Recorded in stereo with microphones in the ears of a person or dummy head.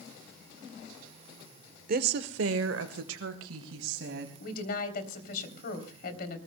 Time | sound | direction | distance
1.9 | a woman speaking | 50° right (ahead or behind) | 0.9 m
4.4 | a woman speaking | 55° left (ahead or behind) | 3 m